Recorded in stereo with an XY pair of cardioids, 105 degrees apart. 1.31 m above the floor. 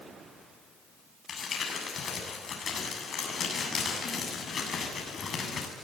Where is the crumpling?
45° left, 7.5 m.